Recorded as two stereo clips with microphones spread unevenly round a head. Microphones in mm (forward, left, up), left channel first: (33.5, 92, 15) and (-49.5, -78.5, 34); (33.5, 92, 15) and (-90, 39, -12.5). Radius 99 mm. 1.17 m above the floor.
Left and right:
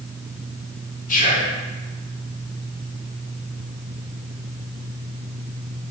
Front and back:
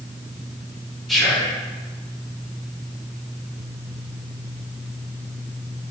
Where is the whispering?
115° left, 1.6 m.